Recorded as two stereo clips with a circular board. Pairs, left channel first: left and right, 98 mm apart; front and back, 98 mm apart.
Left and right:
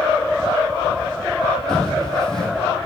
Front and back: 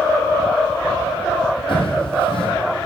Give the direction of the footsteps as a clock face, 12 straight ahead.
12 o'clock.